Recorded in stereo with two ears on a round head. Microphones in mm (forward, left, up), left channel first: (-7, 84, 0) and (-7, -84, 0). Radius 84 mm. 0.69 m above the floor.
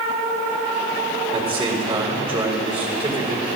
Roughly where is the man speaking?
Right.